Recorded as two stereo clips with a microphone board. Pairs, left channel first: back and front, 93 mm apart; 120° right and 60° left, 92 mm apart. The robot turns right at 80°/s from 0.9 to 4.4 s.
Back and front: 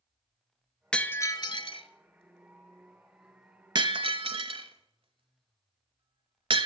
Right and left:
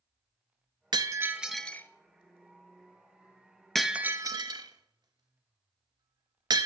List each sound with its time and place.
0.9 s breaking glass: 100° left, 0.5 m; by 6.7 s 20° left, 0.5 m